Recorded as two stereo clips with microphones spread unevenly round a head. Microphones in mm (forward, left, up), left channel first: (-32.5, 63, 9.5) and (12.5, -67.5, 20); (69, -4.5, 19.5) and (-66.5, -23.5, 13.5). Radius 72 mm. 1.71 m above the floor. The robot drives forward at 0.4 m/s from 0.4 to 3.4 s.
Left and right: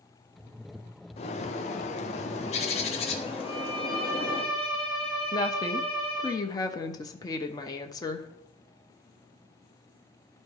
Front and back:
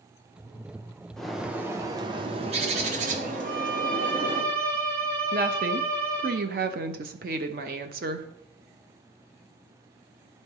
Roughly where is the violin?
Behind.